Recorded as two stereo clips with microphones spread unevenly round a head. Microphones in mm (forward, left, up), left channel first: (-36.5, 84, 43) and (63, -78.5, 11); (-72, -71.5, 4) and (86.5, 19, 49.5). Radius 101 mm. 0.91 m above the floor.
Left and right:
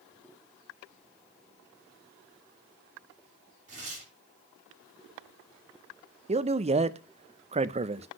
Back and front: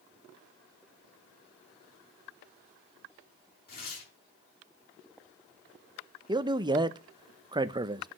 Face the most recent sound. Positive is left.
turn(degrees=-45)